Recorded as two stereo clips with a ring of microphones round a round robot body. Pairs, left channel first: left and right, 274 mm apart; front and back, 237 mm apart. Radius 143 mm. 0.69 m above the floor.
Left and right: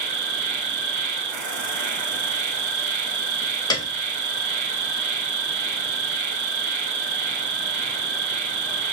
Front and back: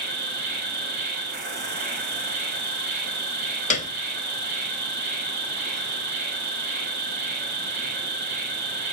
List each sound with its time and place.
0.0 s an insect: 125° right, 1.1 m
3.7 s a piano: 25° left, 0.7 m